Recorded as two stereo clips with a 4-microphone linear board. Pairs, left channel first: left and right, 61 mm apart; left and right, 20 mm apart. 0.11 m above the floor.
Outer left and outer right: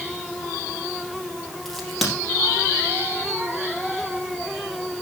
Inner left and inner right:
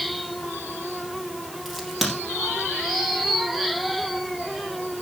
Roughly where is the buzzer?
No buzzer in this recording.